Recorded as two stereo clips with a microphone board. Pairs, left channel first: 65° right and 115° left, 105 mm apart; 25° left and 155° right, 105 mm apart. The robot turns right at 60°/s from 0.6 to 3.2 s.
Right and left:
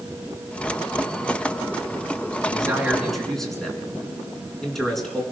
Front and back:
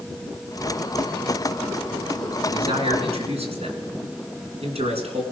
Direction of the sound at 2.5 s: 165° left.